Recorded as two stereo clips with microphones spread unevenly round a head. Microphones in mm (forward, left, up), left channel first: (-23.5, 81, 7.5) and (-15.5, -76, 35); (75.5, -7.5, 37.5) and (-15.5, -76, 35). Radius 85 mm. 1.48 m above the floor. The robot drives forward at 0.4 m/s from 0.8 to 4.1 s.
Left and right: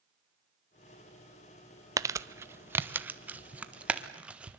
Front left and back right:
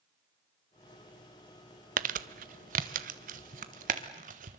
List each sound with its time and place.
2.0 s crumpling: 155° right, 0.6 m; by 4.6 s 170° right, 1.4 m